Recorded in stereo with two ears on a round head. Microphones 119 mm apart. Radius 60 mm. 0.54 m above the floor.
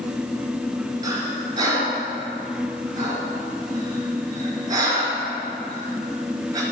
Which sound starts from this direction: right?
Breathing, at 1.0 s.